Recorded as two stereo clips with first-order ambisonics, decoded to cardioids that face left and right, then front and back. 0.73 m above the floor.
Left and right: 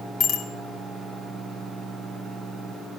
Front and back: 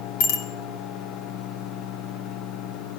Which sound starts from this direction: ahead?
A bicycle bell, at 0.2 s.